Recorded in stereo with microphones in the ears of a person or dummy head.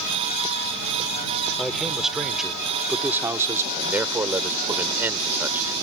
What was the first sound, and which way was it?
A man speaking, centre (ahead or behind).